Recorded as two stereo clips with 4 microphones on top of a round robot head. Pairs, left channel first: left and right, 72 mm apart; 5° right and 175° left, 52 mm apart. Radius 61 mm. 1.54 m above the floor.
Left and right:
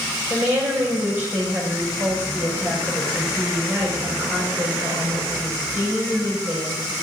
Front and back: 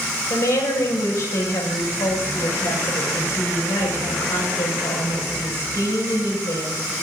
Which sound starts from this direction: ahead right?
A woman speaking, at 0.3 s.